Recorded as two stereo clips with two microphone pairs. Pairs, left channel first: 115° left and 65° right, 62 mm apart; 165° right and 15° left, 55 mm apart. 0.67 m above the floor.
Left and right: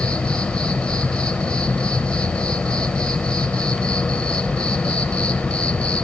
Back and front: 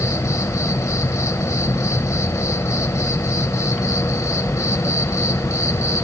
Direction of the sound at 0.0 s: 170° right.